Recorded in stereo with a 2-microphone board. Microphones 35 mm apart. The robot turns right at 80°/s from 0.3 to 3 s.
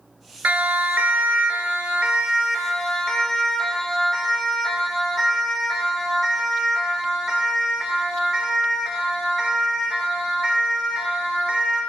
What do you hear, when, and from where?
0.4 s a siren: 45° right (ahead or behind), 3 m; by 11.8 s 10° right (ahead or behind), 17 m